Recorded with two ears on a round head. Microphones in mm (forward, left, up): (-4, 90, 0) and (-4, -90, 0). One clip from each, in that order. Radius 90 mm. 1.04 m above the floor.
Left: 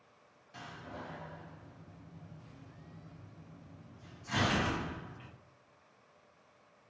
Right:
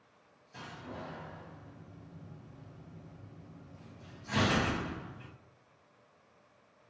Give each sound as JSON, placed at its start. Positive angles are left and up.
{"t": 0.5, "sound": "a door slam", "side_deg": 25, "distance_m": 0.9}